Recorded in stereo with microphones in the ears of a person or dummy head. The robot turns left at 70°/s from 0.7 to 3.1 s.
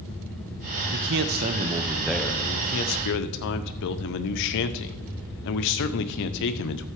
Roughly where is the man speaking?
Right.